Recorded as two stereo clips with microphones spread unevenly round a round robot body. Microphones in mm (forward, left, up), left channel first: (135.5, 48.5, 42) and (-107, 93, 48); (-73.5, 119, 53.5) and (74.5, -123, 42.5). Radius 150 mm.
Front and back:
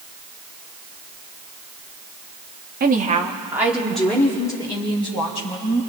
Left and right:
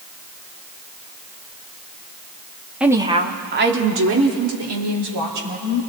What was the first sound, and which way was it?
A woman speaking, 145° right.